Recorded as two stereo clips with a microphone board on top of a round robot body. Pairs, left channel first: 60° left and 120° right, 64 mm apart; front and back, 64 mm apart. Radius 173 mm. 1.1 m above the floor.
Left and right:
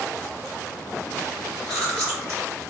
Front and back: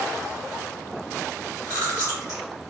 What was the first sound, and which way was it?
Chewing, 40° right.